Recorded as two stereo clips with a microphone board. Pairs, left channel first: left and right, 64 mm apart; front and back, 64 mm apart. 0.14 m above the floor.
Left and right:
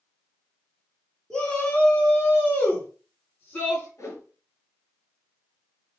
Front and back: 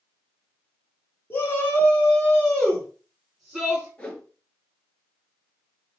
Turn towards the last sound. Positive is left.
turn(degrees=70)